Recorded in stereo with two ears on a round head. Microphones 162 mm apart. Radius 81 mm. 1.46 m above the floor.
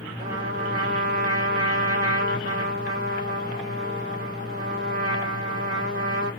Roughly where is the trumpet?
Right.